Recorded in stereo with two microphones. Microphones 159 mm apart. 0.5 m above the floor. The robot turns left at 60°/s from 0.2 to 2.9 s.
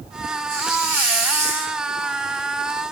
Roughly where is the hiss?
Behind left.